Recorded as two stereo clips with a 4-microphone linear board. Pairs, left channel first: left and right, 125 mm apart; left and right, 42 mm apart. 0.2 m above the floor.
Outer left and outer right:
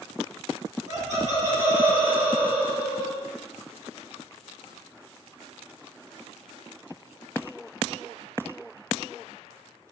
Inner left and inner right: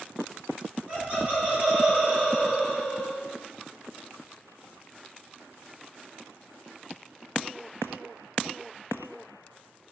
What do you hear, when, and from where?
0.9 s laughter: 30° right (ahead or behind), 1.2 m; by 3.2 s 5° right (ahead or behind), 1.3 m